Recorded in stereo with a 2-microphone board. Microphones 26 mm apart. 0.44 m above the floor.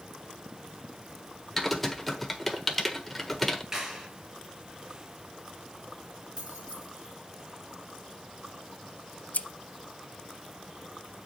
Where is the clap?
20° right (ahead or behind), 5.5 m.